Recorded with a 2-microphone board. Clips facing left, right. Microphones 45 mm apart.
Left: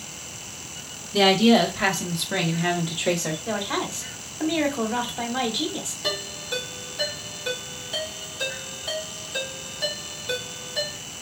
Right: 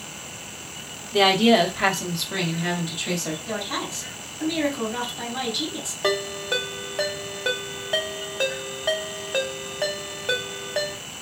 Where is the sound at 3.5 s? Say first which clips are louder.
Left 4 dB; 40° left (ahead or behind), 1.2 m.